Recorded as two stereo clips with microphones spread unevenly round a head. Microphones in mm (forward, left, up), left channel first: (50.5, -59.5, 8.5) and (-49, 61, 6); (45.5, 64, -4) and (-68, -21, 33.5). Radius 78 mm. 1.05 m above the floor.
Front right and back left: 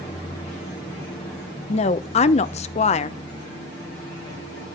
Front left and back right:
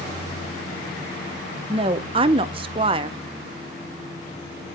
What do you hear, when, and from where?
1.7 s a woman speaking: 85° right, 0.6 m